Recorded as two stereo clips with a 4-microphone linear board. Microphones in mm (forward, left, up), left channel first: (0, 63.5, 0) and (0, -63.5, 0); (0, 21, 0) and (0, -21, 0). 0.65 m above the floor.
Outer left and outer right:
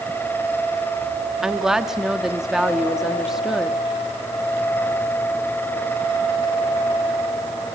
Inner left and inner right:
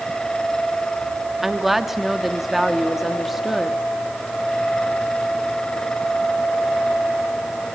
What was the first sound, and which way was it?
A woman speaking, 5° right (ahead or behind).